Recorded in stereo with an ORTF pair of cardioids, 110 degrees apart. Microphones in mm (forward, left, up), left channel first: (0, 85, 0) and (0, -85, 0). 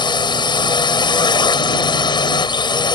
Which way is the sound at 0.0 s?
25° left.